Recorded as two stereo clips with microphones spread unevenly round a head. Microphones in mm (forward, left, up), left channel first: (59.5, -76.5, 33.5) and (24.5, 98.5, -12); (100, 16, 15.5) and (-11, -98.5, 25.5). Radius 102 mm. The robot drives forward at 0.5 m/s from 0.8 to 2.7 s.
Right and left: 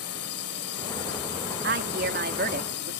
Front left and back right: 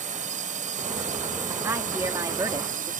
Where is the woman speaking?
145° left; by 2.9 s 155° left.